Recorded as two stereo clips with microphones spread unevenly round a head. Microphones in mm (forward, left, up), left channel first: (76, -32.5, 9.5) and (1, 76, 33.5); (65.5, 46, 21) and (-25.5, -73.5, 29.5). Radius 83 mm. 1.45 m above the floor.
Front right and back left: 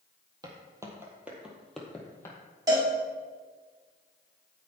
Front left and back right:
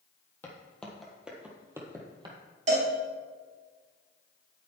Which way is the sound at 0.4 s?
130° left.